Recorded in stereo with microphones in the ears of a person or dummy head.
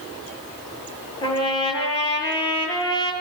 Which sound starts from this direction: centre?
A trumpet, at 1.2 s.